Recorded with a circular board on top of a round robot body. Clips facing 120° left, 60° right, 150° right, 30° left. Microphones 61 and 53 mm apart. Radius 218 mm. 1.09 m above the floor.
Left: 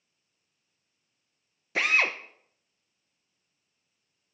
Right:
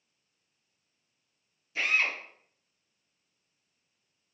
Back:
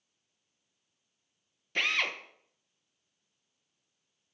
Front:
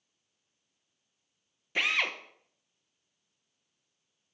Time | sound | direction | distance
1.8 | a drill | 115° left | 0.8 m